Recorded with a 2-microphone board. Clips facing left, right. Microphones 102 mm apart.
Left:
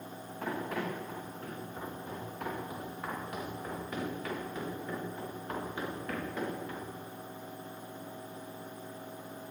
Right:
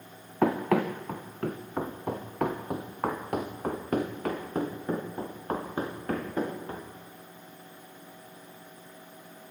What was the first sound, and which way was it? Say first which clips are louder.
Running footsteps: right 11 dB; 80° right.